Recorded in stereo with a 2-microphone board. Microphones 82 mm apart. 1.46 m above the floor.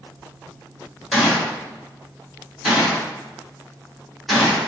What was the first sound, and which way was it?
A gunshot, centre (ahead or behind).